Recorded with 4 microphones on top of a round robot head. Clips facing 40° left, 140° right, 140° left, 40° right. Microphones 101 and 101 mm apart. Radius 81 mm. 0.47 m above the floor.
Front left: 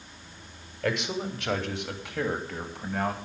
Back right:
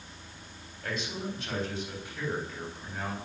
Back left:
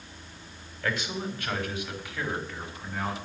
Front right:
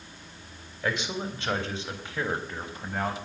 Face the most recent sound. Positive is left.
turn(degrees=10)